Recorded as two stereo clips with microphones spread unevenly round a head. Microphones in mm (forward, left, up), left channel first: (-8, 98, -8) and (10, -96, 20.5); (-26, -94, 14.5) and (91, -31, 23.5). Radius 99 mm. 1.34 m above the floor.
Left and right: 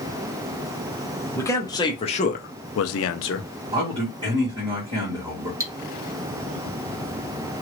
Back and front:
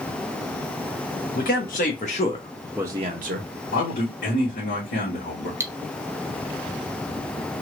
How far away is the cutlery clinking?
About 0.6 m.